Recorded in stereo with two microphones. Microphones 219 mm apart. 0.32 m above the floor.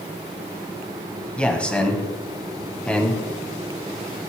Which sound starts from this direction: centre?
A man speaking, at 1.4 s.